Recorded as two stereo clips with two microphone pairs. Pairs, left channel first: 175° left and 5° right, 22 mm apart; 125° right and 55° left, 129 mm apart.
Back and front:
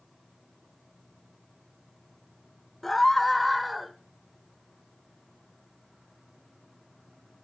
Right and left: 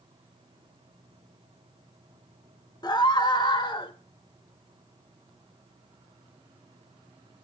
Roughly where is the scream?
Behind right.